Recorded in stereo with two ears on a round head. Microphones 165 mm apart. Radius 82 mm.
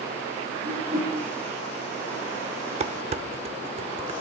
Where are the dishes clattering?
35° right (ahead or behind), 0.7 m.